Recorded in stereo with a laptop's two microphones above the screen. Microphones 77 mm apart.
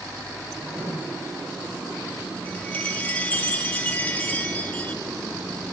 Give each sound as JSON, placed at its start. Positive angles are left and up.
{"t": 0.6, "sound": "writing", "side_deg": -20, "distance_m": 9.0}
{"t": 2.5, "sound": "a chime", "side_deg": 20, "distance_m": 1.3}